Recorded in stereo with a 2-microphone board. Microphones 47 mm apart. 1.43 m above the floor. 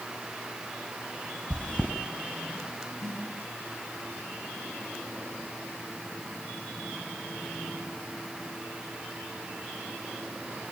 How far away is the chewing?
About 3 m.